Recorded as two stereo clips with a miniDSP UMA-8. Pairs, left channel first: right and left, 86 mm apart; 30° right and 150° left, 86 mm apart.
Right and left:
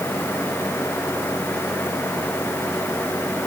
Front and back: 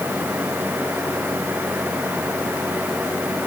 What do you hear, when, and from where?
Only background noise.